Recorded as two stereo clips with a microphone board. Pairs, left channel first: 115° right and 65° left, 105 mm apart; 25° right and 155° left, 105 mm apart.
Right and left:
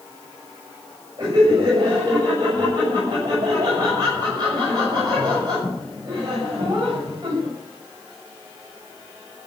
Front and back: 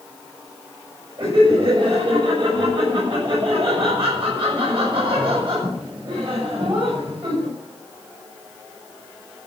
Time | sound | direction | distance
1.2 | laughter | 120° left | 7 m